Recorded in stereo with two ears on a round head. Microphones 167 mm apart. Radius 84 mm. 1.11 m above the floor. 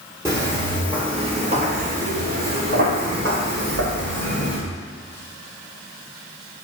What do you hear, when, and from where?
0.2 s footsteps: 15° right (ahead or behind), 1.8 m; by 4.6 s 70° right (ahead or behind), 3.5 m